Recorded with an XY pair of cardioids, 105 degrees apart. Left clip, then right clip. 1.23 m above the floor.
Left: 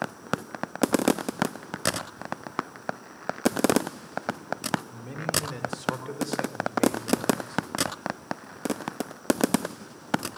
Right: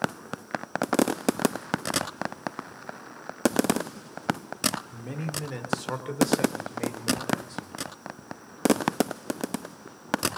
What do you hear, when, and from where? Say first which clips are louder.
4.9 s a man speaking: left 6 dB; 20° right, 4 m; by 7.8 s 15° right, 6.5 m